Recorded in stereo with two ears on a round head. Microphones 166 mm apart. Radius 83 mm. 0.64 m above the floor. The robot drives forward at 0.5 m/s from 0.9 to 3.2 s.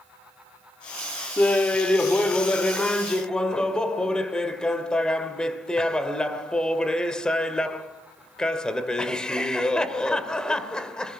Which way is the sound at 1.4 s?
10° left (ahead or behind).